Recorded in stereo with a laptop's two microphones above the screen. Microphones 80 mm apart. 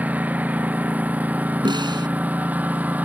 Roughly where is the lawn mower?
Right.